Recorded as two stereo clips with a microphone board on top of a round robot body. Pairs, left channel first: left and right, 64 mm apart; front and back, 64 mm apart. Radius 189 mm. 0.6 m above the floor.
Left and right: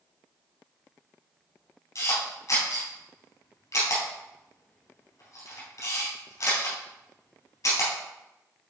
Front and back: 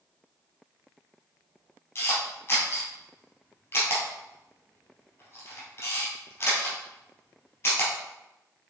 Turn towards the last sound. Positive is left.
turn(degrees=60)